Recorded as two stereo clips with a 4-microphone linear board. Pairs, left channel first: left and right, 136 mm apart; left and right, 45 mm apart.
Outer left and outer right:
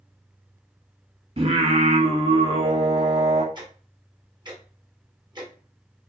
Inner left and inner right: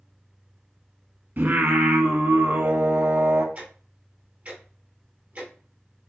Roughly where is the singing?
Right.